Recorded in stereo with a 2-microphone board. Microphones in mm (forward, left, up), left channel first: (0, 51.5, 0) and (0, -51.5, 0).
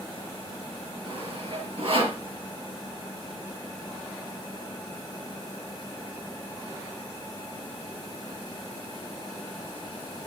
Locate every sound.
1.1 s sawing: 65° right (ahead or behind), 4 m